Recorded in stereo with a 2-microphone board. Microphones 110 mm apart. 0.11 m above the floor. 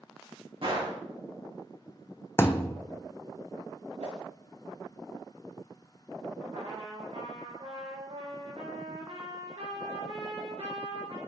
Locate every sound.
0.6 s a gunshot: 55° right (ahead or behind), 3.5 m
2.4 s a thud: 20° left (ahead or behind), 0.6 m
4.0 s a whoosh: 75° right (ahead or behind), 4 m
6.5 s a trumpet: 70° right (ahead or behind), 4 m